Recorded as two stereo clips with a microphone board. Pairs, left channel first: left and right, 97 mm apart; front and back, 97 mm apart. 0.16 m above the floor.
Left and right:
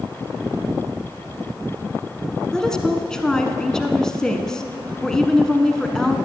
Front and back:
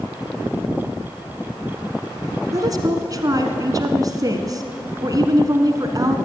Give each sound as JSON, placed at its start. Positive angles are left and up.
{"t": 2.5, "sound": "a woman speaking", "azimuth_deg": 170, "distance_m": 1.3}